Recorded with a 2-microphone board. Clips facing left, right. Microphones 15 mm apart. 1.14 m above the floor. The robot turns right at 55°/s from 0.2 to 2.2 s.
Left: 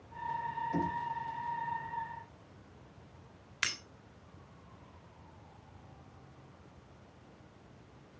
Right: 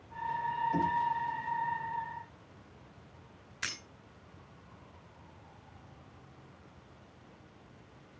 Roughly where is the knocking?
Centre.